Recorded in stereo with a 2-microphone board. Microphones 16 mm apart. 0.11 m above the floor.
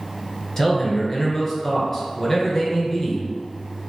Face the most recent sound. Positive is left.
turn(degrees=20)  # may be behind; listen again after turning